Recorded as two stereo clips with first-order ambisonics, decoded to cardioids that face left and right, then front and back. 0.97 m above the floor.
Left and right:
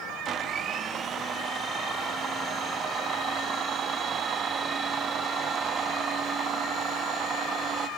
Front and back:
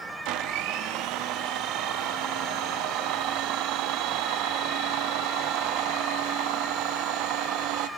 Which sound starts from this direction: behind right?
A blender, at 0.2 s.